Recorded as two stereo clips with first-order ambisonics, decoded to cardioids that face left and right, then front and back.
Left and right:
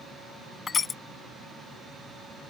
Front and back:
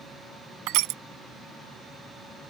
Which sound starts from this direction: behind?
Crushing, at 0.7 s.